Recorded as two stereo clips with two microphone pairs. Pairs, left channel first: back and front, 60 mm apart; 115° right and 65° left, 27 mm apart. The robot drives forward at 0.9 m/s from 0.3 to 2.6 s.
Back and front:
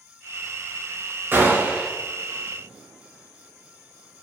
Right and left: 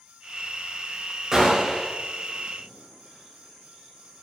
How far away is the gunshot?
About 1.5 m.